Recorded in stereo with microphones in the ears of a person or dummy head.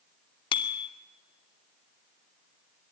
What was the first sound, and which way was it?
A bicycle bell, 30° left (ahead or behind).